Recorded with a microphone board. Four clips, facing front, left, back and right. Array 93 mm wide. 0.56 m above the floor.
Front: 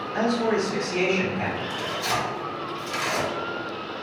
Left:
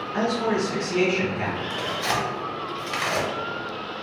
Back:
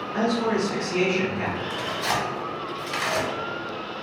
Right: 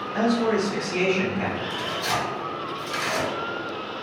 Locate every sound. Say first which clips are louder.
0.1 s a man speaking: right 2 dB, even; 115° left, 1.5 m
1.7 s tearing paper: left 1 dB, back 1 dB; 115° left, 0.8 m